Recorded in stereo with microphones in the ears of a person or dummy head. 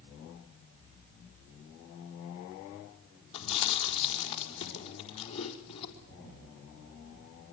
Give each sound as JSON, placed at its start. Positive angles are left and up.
{"t": 3.3, "sound": "chewing", "side_deg": 30, "distance_m": 4.5}